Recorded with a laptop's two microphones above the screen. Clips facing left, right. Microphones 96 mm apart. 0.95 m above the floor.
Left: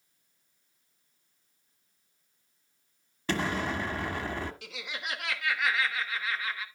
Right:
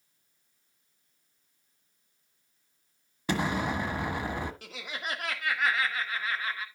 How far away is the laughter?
About 1.9 m.